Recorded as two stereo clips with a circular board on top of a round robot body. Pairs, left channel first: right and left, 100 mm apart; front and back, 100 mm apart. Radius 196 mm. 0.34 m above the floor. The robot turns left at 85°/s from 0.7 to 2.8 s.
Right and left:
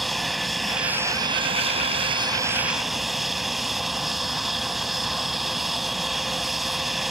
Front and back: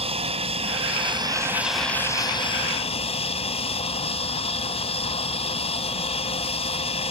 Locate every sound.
0.0 s an aircraft: straight behind; by 7.1 s straight ahead